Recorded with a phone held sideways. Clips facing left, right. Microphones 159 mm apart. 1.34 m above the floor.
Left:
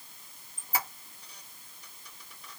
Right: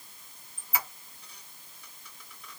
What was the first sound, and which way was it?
A squeak, 40° left (ahead or behind).